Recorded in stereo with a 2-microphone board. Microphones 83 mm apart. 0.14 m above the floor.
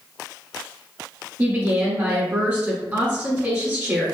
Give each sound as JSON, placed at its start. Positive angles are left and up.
{"t": 1.4, "sound": "a woman speaking", "side_deg": -30, "distance_m": 1.4}